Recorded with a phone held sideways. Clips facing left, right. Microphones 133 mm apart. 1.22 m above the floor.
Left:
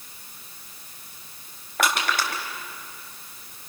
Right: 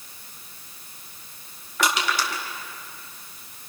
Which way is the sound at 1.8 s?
60° left (ahead or behind).